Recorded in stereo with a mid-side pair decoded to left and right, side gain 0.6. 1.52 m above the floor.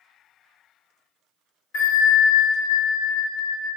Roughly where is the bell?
Ahead left.